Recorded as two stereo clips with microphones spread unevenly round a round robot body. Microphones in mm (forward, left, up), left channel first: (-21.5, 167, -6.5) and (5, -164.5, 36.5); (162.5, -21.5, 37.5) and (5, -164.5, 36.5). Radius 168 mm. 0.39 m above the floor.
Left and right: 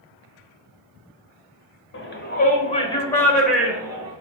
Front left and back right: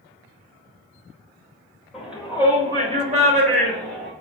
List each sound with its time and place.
1.9 s a shout: 135° left, 1.6 m; by 4.1 s 165° right, 1.7 m